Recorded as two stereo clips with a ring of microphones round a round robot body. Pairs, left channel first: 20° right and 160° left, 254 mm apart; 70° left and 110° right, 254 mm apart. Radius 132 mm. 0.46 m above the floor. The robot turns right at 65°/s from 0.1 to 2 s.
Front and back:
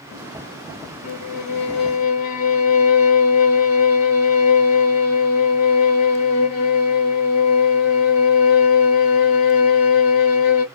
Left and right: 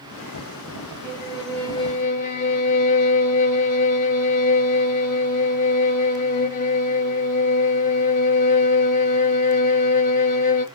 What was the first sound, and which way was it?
A violin, 50° right.